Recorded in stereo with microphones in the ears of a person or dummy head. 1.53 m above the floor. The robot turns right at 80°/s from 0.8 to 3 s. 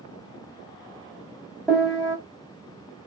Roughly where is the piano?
Centre.